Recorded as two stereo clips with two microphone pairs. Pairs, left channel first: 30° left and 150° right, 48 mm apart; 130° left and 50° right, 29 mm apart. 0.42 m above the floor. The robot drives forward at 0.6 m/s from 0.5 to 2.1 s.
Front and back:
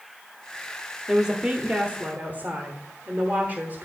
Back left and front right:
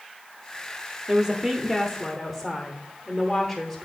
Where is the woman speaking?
85° right, 1.0 m; by 3.9 s 140° right, 1.2 m.